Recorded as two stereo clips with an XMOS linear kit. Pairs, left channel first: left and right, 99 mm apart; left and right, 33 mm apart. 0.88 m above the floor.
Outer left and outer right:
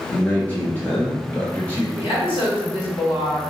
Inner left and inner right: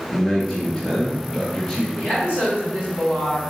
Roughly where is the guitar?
I don't hear a guitar.